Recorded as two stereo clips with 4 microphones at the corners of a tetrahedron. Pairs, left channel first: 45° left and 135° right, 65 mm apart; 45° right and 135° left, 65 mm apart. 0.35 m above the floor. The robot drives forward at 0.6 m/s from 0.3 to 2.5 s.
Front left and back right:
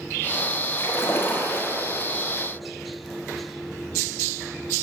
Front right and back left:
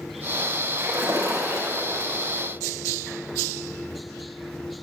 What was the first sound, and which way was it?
A splash, 95° left.